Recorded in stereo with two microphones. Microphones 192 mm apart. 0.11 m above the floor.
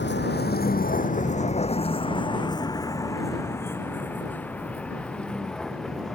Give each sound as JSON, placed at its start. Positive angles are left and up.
{"t": 0.0, "sound": "a vehicle", "side_deg": 65}